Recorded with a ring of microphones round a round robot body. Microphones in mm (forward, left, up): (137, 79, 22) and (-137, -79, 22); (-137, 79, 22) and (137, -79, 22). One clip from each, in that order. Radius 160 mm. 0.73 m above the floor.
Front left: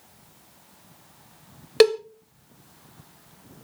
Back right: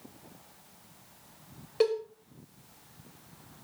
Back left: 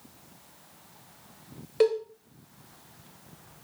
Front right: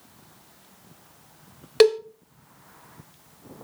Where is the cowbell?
5° left, 0.6 m.